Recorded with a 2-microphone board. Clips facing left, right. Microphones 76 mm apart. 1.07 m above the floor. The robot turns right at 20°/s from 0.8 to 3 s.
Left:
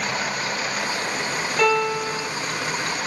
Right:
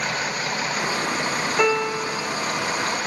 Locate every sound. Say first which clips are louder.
1.6 s a piano: left 2 dB; 10° right (ahead or behind), 0.9 m; by 2.3 s 5° left (ahead or behind), 0.9 m